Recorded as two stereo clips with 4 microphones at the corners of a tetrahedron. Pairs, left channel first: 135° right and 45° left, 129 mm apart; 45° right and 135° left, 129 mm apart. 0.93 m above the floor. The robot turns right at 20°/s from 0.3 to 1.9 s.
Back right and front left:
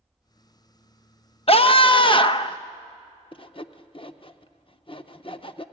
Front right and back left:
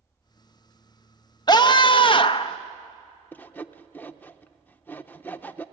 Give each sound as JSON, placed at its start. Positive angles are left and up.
{"t": 1.5, "sound": "a scream", "azimuth_deg": -100, "distance_m": 0.7}
{"t": 3.3, "sound": "sawing", "azimuth_deg": -120, "distance_m": 0.6}